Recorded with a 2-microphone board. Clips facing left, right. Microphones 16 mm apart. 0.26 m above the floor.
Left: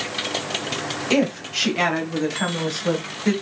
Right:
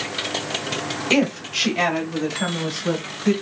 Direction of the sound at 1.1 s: 15° right (ahead or behind).